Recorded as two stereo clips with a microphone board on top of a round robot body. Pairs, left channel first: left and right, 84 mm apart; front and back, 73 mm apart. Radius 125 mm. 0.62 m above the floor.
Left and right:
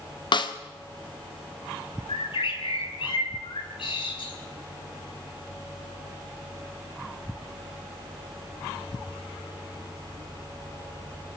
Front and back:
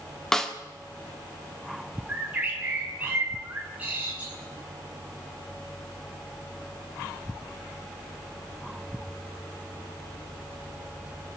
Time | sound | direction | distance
0.3 | a snare drum | 85° left | 2.0 m
2.1 | a bird | 110° left | 5.5 m